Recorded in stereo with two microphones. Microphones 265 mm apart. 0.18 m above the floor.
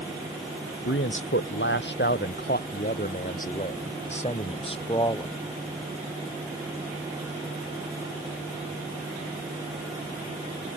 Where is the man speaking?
50° left (ahead or behind); by 5.3 s 15° left (ahead or behind).